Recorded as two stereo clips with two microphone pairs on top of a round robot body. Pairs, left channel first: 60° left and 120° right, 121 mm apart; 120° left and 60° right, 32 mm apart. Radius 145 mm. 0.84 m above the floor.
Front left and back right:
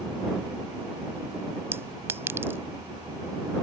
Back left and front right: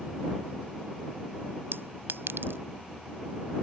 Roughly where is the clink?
Ahead right.